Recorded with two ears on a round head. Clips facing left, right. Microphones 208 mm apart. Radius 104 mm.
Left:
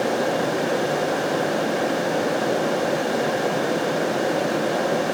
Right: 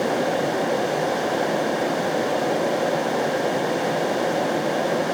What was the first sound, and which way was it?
Only background noise.